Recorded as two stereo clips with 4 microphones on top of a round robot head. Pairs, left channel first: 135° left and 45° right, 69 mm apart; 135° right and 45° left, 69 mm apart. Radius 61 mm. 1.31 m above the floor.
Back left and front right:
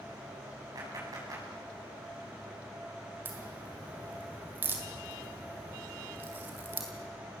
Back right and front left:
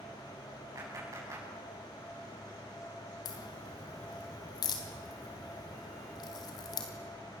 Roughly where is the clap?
Ahead.